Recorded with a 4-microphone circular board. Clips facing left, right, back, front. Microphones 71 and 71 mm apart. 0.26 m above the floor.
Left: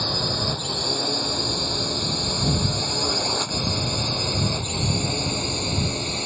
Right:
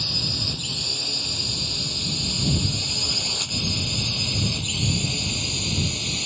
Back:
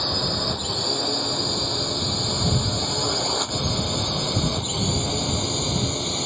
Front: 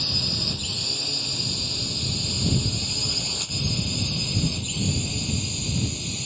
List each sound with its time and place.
0.0 s a drone: 135° left; by 6.3 s 145° left